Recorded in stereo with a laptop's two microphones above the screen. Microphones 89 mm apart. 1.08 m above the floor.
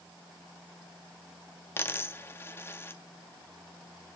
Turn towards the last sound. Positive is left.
turn(degrees=25)  # may be behind; listen again after turning